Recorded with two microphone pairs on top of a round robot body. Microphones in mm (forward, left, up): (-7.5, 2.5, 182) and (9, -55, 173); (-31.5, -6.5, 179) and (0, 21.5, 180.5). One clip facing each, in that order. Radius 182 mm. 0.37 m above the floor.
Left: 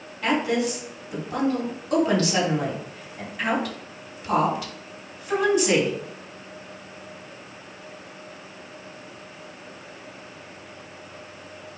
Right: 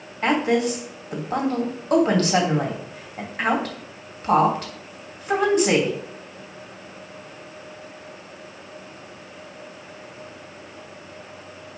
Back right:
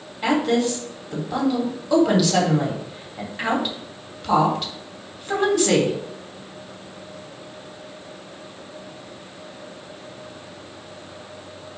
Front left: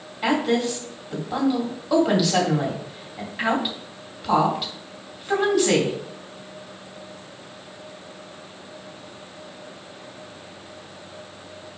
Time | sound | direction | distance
0.2 | a woman speaking | 45° right | 3 m